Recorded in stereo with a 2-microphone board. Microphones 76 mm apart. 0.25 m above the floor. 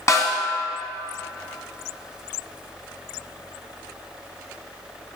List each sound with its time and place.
0.1 s a snare drum: 45° left (ahead or behind), 1.5 m